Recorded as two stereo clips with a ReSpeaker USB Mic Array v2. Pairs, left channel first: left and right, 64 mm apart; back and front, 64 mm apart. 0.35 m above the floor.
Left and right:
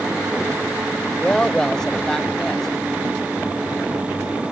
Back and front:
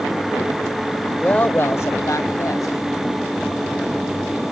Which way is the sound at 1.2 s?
140° left.